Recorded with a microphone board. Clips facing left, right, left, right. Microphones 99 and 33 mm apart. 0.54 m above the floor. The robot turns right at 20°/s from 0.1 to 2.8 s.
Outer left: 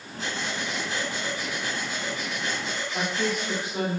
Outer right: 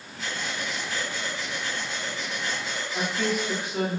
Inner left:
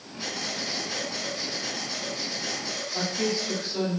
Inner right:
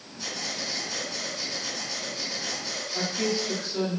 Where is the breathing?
130° left, 0.9 m; by 3.7 s 175° right, 0.9 m.